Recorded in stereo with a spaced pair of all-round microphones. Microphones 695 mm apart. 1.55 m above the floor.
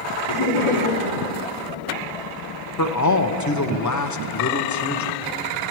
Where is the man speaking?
30° left (ahead or behind), 0.6 m.